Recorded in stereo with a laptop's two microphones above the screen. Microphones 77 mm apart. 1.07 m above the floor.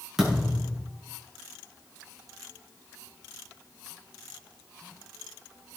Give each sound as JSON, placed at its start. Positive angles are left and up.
{"t": 0.2, "sound": "a thud", "side_deg": -5, "distance_m": 7.5}